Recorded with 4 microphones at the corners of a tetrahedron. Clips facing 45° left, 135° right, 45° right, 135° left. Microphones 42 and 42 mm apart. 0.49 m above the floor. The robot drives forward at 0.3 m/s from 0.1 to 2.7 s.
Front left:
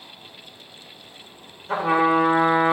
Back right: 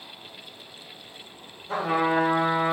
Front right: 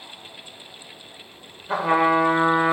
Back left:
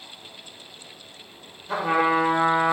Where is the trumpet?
40° left, 1.4 m; by 2.7 s 50° left, 1.2 m.